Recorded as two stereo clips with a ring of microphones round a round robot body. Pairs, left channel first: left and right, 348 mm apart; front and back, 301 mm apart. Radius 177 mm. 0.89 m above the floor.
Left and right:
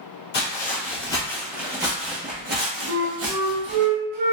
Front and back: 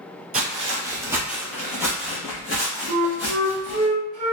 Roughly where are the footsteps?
Behind left.